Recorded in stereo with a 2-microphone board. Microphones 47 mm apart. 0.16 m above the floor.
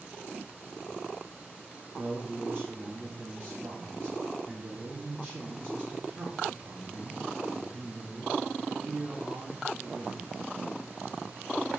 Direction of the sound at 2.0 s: 35° right (ahead or behind).